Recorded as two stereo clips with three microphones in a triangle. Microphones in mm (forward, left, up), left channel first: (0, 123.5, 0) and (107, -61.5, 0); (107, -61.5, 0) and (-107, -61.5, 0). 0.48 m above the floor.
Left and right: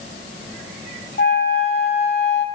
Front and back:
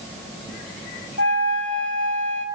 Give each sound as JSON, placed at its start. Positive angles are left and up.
{"t": 1.2, "sound": "a flute", "azimuth_deg": 155, "distance_m": 1.5}